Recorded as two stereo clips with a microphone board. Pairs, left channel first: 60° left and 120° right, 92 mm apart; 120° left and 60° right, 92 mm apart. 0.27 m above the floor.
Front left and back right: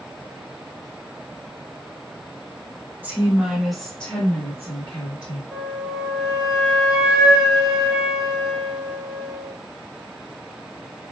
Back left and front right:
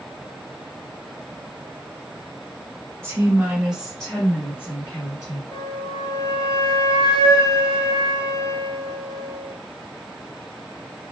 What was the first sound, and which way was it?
A woman speaking, 75° right.